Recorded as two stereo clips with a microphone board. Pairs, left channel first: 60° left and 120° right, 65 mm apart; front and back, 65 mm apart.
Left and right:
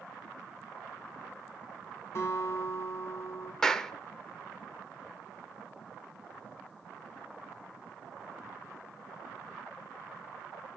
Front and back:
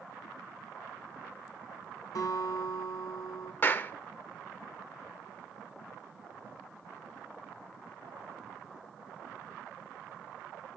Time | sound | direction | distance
2.1 | a guitar | 20° left | 3 m
3.6 | a clap | 10° right | 0.6 m